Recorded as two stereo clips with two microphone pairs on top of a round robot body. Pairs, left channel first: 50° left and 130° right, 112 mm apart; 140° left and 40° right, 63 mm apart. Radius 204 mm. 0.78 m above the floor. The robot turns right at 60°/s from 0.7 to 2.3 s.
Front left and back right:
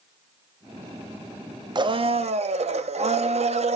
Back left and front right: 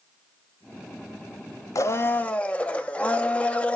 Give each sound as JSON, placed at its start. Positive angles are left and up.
{"t": 1.8, "sound": "a blender", "azimuth_deg": 180, "distance_m": 0.8}